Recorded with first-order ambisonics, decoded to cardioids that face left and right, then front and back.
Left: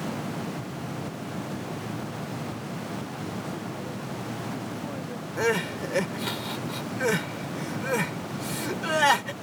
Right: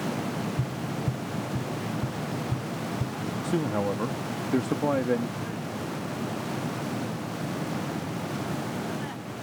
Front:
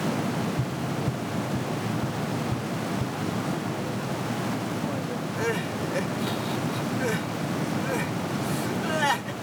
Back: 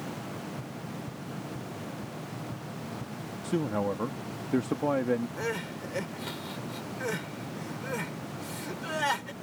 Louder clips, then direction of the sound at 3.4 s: Right 7 dB, even; 125° right.